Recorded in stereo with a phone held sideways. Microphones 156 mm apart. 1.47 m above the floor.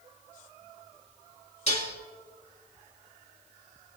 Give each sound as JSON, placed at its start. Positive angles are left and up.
{"t": 1.7, "sound": "dishes clattering", "side_deg": 50, "distance_m": 1.6}